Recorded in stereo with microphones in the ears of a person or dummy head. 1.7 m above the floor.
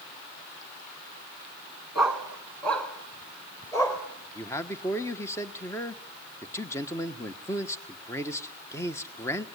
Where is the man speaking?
15° left (ahead or behind), 1.4 m.